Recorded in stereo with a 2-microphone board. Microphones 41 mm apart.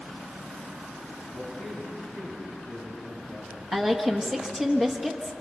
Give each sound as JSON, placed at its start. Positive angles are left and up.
{"t": 1.3, "sound": "a man speaking", "side_deg": 10, "distance_m": 7.0}
{"t": 3.7, "sound": "a woman speaking", "side_deg": -15, "distance_m": 1.3}